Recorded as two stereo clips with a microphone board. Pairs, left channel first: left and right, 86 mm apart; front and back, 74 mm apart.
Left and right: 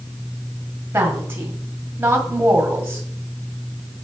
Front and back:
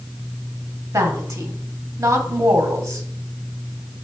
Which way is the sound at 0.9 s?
155° right.